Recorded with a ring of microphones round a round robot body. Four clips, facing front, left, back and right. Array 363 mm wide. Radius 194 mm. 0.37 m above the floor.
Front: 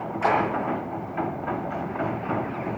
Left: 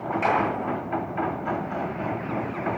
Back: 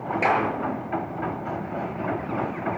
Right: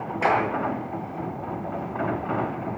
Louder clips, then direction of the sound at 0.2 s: Right 2 dB, front 1 dB; 140° right.